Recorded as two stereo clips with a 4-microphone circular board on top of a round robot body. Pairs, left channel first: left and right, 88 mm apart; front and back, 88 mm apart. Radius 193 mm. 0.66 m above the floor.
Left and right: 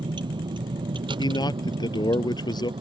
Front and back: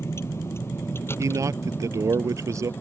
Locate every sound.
0.0 s a vehicle: 60° right; by 2.8 s 65° right
1.2 s a man speaking: 125° left